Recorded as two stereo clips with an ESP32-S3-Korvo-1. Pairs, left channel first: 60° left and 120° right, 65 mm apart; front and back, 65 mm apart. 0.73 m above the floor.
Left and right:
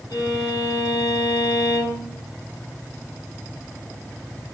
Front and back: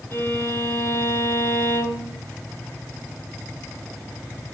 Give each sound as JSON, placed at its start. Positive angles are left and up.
{"t": 0.1, "sound": "a violin", "azimuth_deg": 50, "distance_m": 8.5}